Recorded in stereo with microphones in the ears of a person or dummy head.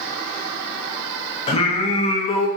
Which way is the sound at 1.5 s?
35° left (ahead or behind).